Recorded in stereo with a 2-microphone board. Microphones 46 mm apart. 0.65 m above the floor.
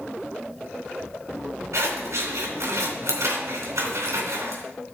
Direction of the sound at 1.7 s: 80° right.